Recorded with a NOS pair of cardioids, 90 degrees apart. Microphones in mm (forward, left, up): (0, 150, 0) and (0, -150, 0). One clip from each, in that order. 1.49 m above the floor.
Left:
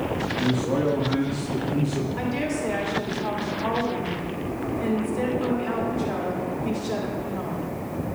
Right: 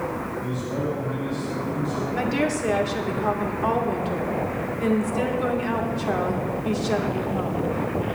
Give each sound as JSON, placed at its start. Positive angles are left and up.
{"t": 0.4, "sound": "a man speaking", "azimuth_deg": 70, "distance_m": 1.9}
{"t": 2.2, "sound": "a woman speaking", "azimuth_deg": -40, "distance_m": 2.5}